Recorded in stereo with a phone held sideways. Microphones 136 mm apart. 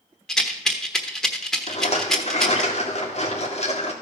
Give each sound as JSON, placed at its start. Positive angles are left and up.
{"t": 0.3, "sound": "a rattle", "side_deg": 5, "distance_m": 1.2}
{"t": 1.7, "sound": "a rattle", "side_deg": 55, "distance_m": 1.9}